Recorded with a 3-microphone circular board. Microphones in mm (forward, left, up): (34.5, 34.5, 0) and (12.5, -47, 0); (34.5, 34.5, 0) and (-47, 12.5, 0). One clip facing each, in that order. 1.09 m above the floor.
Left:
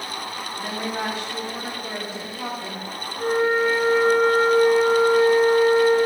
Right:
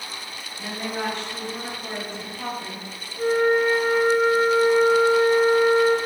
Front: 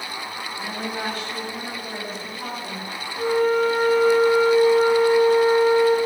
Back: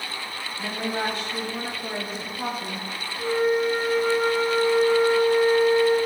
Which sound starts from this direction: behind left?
A woman speaking, at 0.6 s.